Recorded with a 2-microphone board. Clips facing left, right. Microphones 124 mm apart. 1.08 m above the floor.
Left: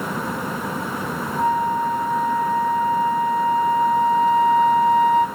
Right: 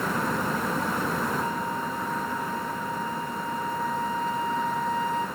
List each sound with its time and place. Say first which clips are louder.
1.4 s a flute: left 9 dB; 70° left (ahead or behind), 2 m